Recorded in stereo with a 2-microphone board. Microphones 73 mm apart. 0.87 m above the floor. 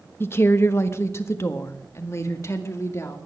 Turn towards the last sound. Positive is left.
turn(degrees=40)  # may be behind; listen again after turning